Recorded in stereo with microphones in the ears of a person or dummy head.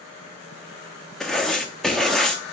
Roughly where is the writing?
Centre.